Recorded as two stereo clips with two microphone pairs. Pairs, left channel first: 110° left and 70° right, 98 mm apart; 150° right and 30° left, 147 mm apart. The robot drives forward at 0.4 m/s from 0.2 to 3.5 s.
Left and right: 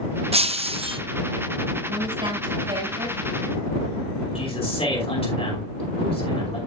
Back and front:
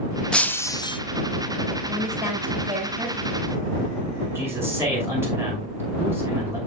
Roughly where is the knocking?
I don't hear knocking.